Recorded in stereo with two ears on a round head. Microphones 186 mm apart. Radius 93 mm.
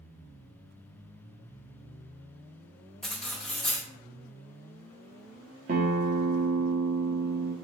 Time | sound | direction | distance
3.0 | cutlery clinking | 5° left (ahead or behind) | 0.9 m
5.7 | a guitar | 40° right (ahead or behind) | 0.5 m